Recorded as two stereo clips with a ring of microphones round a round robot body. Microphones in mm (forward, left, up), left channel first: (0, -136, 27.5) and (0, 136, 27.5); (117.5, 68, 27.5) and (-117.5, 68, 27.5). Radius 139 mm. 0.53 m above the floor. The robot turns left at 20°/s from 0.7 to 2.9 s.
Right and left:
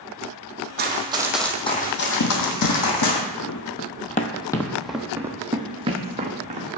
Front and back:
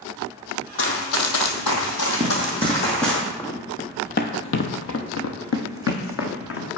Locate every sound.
0.8 s running footsteps: 35° left, 1.6 m; by 3.2 s 90° right, 2 m
2.2 s running footsteps: 100° right, 1.1 m; by 6.8 s 25° left, 1.6 m